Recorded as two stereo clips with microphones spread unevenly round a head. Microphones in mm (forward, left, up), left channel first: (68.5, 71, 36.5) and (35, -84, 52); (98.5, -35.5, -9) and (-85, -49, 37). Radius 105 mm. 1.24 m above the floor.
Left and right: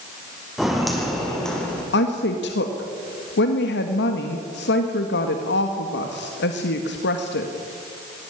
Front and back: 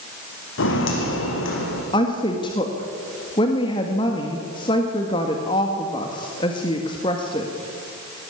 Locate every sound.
0.6 s footsteps: 15° right, 4 m; by 1.8 s 10° right, 5 m
1.9 s a woman speaking: 75° left, 1.6 m